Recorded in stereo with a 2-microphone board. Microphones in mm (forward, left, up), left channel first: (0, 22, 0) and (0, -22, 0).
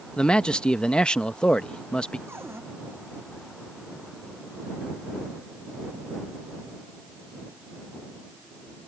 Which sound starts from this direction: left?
A man speaking, at 0.2 s.